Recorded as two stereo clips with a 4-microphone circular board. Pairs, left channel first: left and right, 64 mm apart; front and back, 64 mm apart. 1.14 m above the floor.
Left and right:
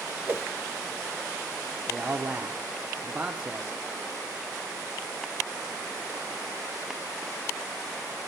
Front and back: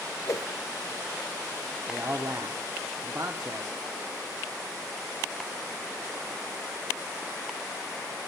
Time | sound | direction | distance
0.2 | a whoosh | 35° right | 0.6 m
1.9 | a man speaking | 155° right | 0.5 m